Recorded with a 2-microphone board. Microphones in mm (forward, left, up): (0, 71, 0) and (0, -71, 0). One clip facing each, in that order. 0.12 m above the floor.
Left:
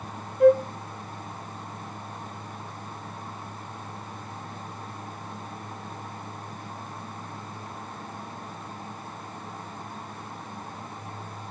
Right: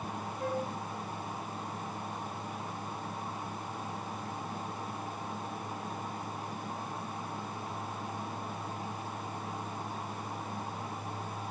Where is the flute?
70° left (ahead or behind), 0.8 m.